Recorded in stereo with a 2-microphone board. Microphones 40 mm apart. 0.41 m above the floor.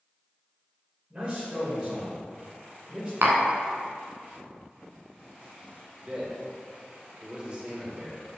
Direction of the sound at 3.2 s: 75° right (ahead or behind).